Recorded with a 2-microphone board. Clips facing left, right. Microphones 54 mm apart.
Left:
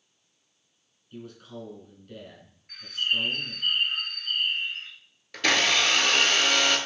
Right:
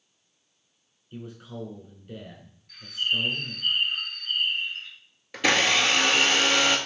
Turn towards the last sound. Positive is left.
turn(degrees=-15)  # may be behind; listen again after turning